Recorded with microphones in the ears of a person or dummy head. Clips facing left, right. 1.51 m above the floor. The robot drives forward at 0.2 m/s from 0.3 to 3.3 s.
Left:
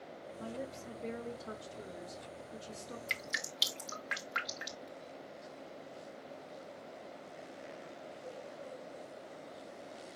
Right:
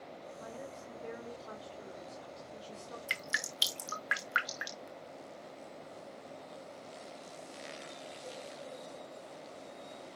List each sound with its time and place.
0.4 s a woman speaking: 35° left (ahead or behind), 2.5 m; by 3.0 s 30° left (ahead or behind), 2.5 m
3.1 s dripping: 10° right (ahead or behind), 0.8 m